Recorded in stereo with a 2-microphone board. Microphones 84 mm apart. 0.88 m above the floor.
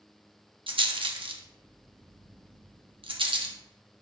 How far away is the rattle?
About 0.9 m.